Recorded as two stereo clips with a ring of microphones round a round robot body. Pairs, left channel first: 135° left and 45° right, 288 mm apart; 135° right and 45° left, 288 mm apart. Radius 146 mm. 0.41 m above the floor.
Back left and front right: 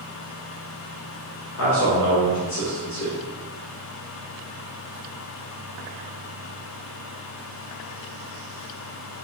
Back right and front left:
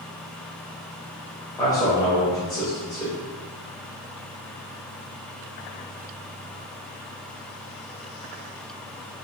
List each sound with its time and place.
1.6 s a man speaking: 150° left, 1.3 m